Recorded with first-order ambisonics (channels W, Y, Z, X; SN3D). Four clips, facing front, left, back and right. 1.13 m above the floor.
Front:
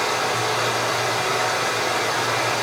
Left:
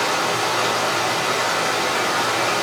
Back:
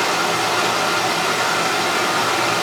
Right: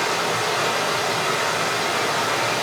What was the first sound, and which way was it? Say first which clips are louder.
Running water: left 2 dB, back 3 dB; 175° left.